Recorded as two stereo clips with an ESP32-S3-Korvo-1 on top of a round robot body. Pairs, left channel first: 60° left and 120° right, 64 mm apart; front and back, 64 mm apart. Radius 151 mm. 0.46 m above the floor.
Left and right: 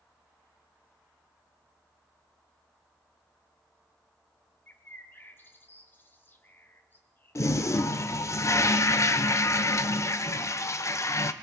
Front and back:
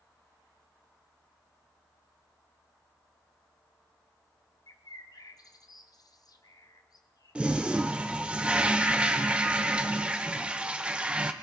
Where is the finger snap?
No finger snap in this recording.